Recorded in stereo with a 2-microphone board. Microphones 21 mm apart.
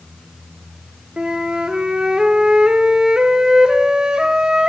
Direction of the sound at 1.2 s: 45° right (ahead or behind).